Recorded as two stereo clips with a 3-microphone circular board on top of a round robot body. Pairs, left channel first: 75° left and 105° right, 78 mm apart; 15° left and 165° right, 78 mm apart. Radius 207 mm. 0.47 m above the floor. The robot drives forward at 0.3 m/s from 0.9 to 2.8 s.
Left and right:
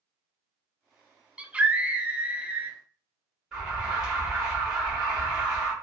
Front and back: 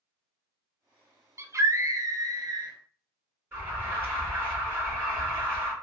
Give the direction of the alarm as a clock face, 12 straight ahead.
6 o'clock.